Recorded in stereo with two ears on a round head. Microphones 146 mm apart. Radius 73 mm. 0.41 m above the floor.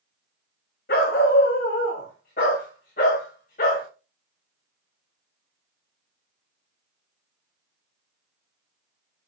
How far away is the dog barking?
About 6 m.